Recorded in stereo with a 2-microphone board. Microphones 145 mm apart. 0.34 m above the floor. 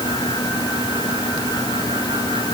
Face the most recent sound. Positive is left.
No sound to turn to.